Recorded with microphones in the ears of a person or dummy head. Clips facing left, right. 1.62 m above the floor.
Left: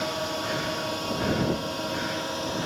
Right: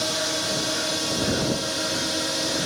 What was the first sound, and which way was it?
A drone, 25° right (ahead or behind).